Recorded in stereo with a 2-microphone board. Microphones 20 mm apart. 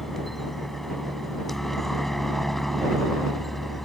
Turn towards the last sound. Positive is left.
turn(degrees=15)  # may be behind; listen again after turning